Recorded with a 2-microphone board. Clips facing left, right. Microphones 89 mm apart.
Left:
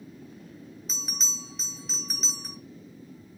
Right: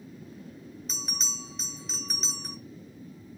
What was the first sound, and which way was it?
A bell, centre (ahead or behind).